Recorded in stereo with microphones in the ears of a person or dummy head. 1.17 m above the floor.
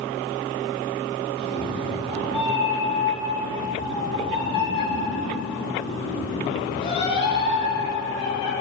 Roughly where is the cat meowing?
Left.